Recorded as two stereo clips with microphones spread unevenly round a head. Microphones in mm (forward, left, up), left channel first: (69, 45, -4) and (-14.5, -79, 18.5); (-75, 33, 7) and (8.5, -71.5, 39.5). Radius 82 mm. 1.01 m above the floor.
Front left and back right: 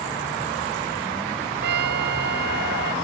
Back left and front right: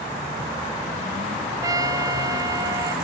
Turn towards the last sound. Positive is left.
turn(degrees=-115)